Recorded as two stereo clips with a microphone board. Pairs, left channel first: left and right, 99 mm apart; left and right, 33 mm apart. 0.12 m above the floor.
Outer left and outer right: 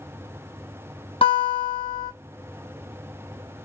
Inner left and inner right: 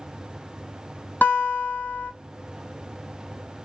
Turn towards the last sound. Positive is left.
turn(degrees=70)  # may be behind; listen again after turning